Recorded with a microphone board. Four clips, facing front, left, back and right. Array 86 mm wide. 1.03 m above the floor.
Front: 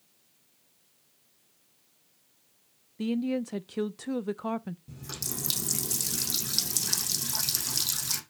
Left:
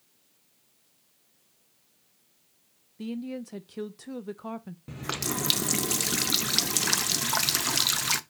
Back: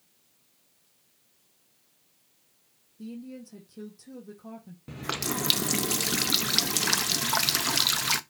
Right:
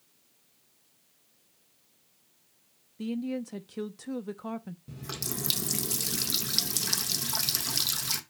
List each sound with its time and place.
3.0 s a woman speaking: 5° left, 0.5 m
4.9 s a running tap: 145° left, 0.6 m